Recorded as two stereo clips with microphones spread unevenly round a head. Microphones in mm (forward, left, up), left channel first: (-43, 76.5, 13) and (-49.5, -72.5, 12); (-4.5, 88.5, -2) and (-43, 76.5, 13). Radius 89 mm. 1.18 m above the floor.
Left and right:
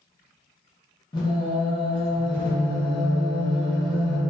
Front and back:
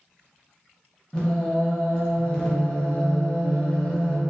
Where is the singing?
100° left, 0.7 m.